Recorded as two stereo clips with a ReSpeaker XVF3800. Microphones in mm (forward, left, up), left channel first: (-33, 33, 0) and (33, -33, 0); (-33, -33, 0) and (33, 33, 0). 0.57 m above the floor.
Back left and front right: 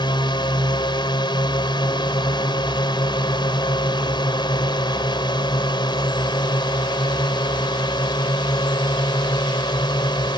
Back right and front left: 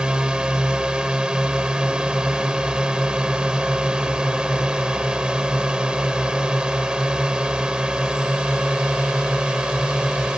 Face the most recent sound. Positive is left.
turn(degrees=125)